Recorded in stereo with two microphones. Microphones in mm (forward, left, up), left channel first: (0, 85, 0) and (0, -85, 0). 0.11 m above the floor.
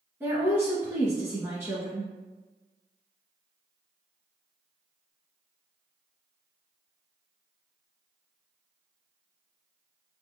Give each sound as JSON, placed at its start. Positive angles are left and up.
{"t": 0.2, "sound": "a woman speaking", "side_deg": -15, "distance_m": 1.3}